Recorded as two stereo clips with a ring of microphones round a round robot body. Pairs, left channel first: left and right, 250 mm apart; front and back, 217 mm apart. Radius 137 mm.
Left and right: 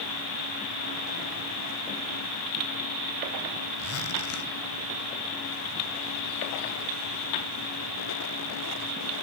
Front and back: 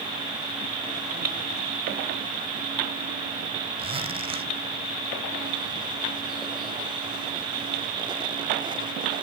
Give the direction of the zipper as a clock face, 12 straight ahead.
8 o'clock.